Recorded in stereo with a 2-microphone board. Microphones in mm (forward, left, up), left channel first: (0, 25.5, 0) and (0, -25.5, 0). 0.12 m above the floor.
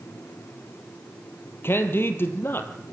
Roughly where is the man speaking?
Left.